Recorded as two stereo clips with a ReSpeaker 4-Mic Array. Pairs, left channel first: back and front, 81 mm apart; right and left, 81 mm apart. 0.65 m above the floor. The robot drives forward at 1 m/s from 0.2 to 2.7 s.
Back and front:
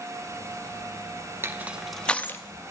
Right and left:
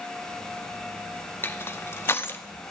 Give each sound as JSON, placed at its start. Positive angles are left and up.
{"t": 1.4, "sound": "crushing", "azimuth_deg": -45, "distance_m": 0.9}